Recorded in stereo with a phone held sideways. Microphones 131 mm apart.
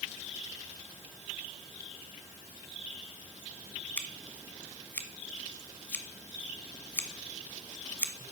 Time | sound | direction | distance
4.0 | scissors | 10° left (ahead or behind) | 1.3 m